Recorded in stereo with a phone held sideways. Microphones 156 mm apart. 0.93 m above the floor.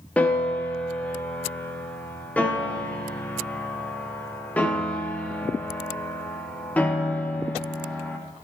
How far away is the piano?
About 1.0 m.